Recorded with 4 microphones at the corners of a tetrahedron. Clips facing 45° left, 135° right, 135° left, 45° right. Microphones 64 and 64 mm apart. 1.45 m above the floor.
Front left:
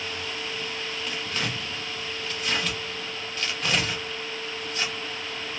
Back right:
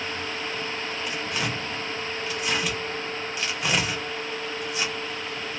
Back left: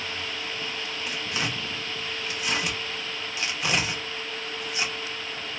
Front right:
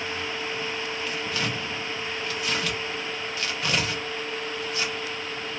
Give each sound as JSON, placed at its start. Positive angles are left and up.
{"t": 1.1, "sound": "tearing paper", "azimuth_deg": 175, "distance_m": 0.7}